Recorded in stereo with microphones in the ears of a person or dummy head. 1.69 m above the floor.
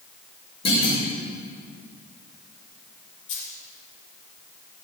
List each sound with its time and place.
0.7 s a clunk: 30° left (ahead or behind), 5.5 m
3.3 s a dropped coin: 65° left (ahead or behind), 4 m